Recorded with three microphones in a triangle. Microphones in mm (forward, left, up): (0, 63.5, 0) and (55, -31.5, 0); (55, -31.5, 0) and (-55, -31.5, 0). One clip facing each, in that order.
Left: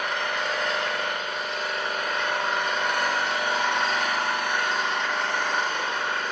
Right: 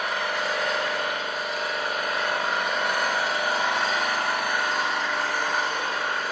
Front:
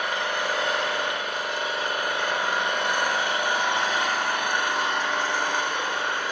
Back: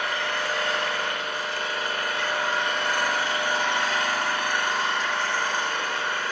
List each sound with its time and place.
0.0 s an engine running: 20° left, 1.2 m